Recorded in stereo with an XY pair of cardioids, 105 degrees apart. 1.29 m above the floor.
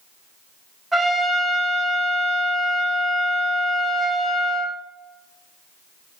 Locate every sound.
0.9 s a trumpet: 15° right, 1.8 m